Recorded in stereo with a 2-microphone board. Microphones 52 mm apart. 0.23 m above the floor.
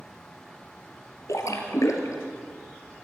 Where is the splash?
75° left (ahead or behind), 2.5 m.